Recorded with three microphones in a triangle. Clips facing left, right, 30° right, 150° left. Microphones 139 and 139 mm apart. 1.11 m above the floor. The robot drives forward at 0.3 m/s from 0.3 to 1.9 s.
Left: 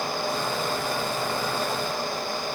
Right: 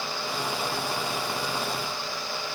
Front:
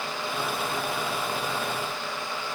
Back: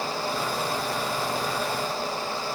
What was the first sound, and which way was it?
Only background noise.